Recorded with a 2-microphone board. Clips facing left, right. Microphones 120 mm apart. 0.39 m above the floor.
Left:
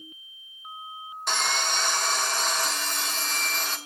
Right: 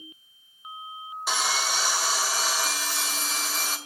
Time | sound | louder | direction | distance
1.3 | sawing | even | 5° right (ahead or behind) | 1.8 m